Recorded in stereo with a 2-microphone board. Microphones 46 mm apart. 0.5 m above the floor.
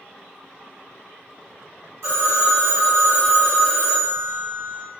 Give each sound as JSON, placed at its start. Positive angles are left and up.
{"t": 2.0, "sound": "a phone ringing", "side_deg": -70, "distance_m": 1.8}